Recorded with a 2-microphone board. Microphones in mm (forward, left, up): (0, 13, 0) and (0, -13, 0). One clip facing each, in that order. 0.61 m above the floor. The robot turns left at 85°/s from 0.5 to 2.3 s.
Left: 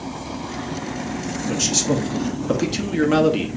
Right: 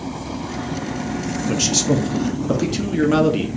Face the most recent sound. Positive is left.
turn(degrees=10)  # may be behind; listen again after turning